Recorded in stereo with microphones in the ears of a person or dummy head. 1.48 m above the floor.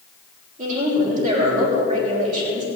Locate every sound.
0.6 s a woman speaking: 45° right (ahead or behind), 6.5 m